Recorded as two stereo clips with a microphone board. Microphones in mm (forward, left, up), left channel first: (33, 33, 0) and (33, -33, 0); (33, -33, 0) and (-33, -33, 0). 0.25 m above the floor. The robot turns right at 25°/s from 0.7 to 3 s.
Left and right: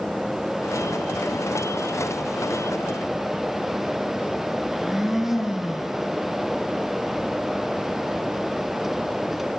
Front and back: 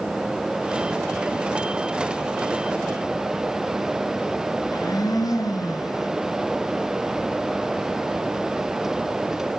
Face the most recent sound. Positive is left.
turn(degrees=-5)